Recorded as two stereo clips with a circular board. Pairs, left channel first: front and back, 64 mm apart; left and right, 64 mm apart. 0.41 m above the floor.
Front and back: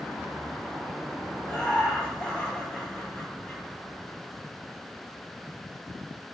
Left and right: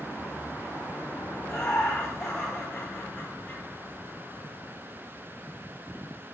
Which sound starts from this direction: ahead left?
Laughter, at 1.4 s.